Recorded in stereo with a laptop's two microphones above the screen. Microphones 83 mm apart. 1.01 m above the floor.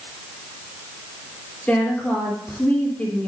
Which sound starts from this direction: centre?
A woman speaking, at 1.7 s.